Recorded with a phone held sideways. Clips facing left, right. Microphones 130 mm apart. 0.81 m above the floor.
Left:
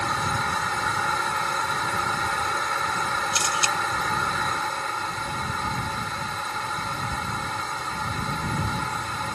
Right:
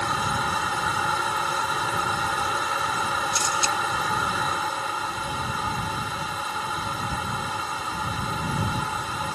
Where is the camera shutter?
80° left.